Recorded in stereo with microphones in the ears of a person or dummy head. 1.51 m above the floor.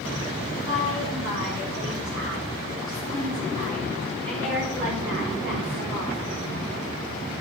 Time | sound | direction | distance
0.7 | a woman speaking | 25° right (ahead or behind) | 4.5 m